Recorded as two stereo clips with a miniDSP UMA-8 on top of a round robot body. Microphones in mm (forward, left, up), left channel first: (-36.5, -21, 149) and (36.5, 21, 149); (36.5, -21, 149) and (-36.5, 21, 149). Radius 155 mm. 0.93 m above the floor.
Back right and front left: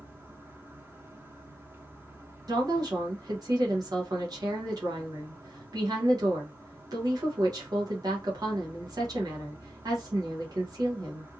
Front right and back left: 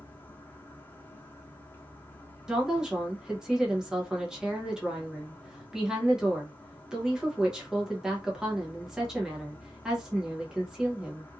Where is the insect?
5° right, 1.2 m.